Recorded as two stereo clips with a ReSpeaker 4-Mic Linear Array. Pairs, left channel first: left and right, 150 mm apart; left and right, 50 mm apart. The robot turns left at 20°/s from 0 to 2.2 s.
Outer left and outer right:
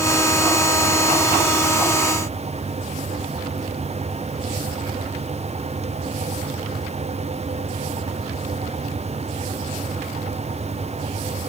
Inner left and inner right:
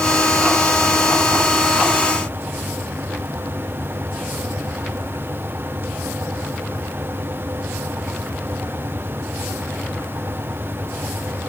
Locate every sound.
Only background noise.